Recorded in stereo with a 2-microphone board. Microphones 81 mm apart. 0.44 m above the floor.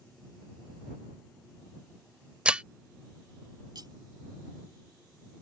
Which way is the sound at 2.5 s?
10° right (ahead or behind).